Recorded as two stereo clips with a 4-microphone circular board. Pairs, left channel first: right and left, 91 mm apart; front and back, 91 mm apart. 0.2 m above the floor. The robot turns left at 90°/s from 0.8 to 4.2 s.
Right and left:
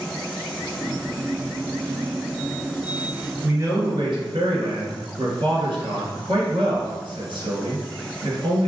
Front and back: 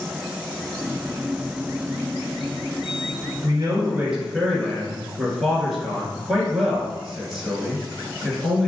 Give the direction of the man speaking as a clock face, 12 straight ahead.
7 o'clock.